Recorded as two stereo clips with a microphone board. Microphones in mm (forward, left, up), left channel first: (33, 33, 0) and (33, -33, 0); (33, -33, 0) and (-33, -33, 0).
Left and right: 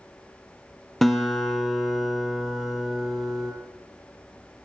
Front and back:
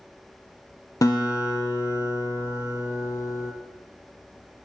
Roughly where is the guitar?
Ahead.